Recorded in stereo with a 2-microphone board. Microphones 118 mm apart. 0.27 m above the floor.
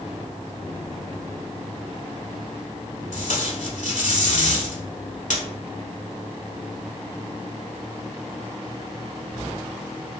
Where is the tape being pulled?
80° left, 0.7 m.